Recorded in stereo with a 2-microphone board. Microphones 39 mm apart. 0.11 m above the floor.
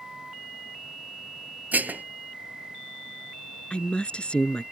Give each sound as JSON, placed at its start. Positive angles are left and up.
{"t": 1.7, "sound": "dishes clattering", "side_deg": -55}
{"t": 3.7, "sound": "a woman speaking", "side_deg": 30}